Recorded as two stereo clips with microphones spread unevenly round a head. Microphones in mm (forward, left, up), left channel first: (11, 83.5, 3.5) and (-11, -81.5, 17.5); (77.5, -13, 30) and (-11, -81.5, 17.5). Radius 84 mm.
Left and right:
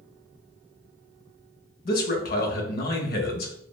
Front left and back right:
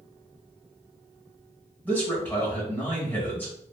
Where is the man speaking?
115° left, 0.7 m.